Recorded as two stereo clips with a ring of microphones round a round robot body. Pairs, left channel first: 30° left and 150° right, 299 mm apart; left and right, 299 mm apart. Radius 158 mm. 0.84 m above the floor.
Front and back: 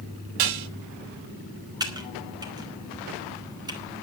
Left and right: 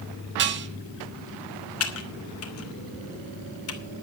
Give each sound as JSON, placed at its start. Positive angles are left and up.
{"t": 0.4, "sound": "dishes clattering", "azimuth_deg": -145, "distance_m": 0.9}
{"t": 1.8, "sound": "typing on a keyboard", "azimuth_deg": 135, "distance_m": 2.5}